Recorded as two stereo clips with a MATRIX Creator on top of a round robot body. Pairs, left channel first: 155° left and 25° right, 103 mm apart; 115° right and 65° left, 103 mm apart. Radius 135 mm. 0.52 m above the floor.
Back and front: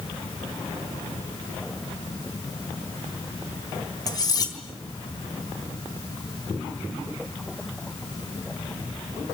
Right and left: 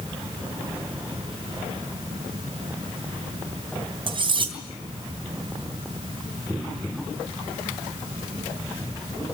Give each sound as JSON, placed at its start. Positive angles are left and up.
{"t": 4.1, "sound": "cutlery clinking", "azimuth_deg": 105, "distance_m": 3.0}